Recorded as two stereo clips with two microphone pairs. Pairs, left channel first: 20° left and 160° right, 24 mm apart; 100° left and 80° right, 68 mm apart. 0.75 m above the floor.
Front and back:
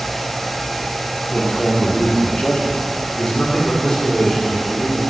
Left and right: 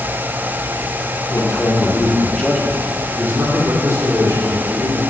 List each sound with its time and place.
1.3 s a man speaking: 60° left, 1.9 m; by 5.0 s 45° right, 3.5 m